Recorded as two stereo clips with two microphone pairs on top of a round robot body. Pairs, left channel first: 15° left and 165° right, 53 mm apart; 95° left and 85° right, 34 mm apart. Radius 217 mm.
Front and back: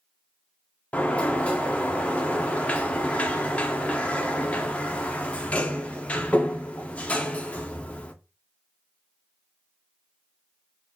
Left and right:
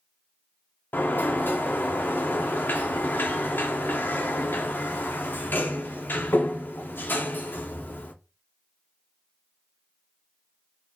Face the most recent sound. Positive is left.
turn(degrees=85)